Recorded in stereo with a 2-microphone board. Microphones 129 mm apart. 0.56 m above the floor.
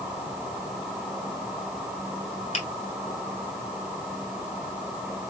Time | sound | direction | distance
2.5 | a finger snap | 60° left (ahead or behind) | 2.5 m